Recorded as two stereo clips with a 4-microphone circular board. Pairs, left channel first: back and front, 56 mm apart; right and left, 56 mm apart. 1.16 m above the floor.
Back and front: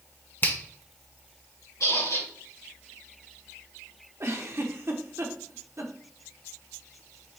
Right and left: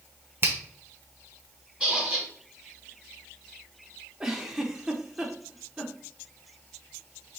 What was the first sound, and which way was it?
A finger snap, 135° left.